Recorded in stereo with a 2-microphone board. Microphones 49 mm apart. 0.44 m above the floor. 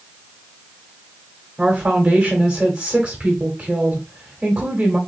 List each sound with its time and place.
1.6 s a woman speaking: 20° right (ahead or behind), 1.3 m